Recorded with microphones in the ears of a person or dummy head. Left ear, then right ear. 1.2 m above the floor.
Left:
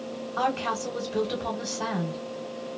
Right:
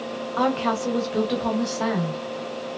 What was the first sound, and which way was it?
A woman speaking, 10° right (ahead or behind).